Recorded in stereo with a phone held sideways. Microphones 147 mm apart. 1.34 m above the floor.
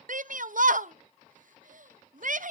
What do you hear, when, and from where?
0.1 s a shout: 65° right (ahead or behind), 0.7 m